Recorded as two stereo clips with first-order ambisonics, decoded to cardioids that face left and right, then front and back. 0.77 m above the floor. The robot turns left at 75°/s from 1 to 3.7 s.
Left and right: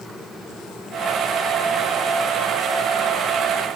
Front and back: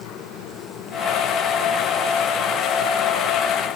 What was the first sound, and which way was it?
Only background noise.